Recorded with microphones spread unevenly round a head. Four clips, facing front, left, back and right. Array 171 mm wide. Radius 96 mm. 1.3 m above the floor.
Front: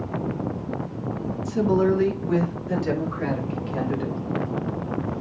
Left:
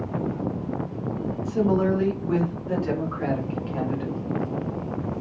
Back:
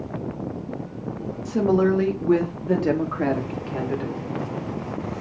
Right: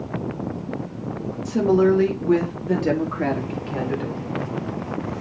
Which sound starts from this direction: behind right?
A woman speaking, at 1.4 s.